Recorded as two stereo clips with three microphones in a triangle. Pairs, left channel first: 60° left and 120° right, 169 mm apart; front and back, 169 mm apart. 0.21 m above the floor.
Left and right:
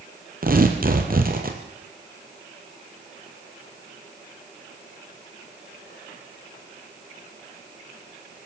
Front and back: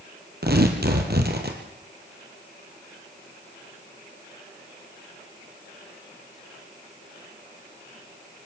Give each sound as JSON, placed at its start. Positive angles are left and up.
{"t": 0.4, "sound": "tearing paper", "azimuth_deg": -155, "distance_m": 3.5}